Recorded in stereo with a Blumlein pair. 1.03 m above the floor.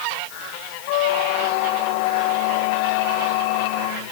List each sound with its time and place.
0.9 s a squeak: 45° left, 0.7 m